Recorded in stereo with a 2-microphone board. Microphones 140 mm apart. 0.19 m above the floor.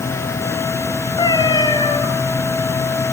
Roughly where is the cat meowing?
Left.